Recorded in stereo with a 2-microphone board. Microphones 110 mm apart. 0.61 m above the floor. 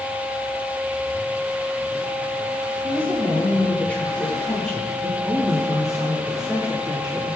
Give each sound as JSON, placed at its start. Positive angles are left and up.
{"t": 2.8, "sound": "a woman speaking", "side_deg": 20, "distance_m": 9.5}